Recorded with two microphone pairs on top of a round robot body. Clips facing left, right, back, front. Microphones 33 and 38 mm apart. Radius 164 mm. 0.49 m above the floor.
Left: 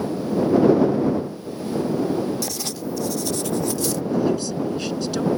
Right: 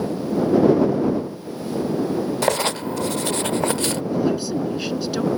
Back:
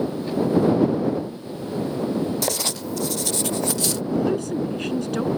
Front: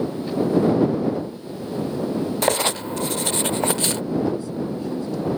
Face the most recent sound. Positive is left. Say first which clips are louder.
# even, back 4 dB
turn(degrees=-170)